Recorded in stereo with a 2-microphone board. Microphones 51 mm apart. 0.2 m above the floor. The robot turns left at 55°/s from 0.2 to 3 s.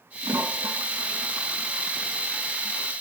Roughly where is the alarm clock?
No alarm clock in this recording.